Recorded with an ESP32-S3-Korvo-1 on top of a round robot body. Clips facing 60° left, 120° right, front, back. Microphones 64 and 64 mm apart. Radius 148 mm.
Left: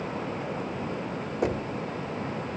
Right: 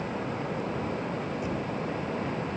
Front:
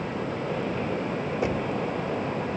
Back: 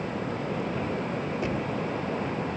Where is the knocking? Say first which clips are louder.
Left 3 dB, front 4 dB; 70° left, 1.7 m.